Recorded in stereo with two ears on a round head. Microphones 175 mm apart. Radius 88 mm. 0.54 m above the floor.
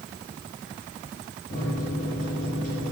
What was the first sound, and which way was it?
A microwave, 40° left (ahead or behind).